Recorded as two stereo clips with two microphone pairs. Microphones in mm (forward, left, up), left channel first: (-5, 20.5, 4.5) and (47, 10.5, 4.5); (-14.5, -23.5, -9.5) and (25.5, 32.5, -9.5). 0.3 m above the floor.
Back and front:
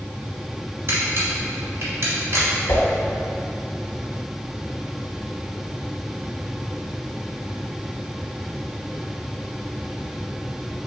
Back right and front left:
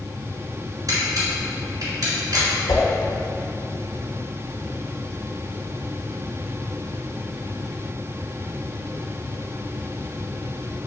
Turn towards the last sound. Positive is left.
turn(degrees=-150)